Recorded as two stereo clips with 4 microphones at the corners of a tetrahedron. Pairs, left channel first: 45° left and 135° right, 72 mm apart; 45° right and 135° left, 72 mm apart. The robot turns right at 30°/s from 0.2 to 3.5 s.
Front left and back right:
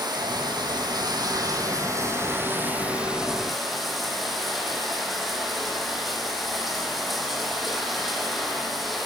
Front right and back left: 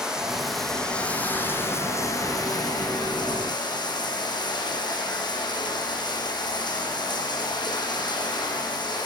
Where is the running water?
145° right, 8 m; by 9.1 s 45° right, 8 m.